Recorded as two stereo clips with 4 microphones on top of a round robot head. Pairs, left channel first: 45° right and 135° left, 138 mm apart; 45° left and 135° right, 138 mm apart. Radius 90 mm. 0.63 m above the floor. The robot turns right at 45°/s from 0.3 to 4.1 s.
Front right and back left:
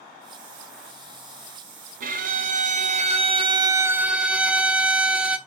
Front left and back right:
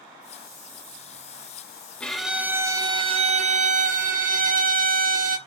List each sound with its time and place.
2.0 s a violin: 125° left, 1.0 m; by 5.4 s 140° right, 1.0 m